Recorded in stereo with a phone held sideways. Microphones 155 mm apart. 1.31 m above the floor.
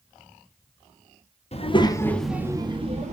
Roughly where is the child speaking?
Left.